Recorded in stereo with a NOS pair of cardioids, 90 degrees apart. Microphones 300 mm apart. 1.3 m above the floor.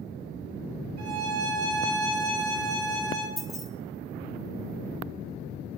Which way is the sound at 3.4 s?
Straight ahead.